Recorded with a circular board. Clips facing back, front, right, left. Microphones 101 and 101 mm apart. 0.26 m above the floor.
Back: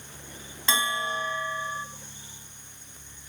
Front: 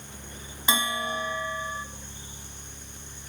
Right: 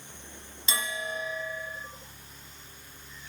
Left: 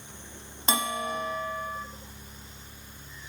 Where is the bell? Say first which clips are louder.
Even, left 5 dB; 75° left, 0.6 m.